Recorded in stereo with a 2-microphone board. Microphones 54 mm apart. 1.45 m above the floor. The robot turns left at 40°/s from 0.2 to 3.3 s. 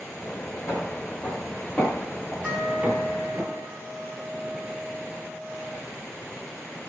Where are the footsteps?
65° left (ahead or behind), 4.5 m; by 3.4 s 40° right (ahead or behind), 1.9 m.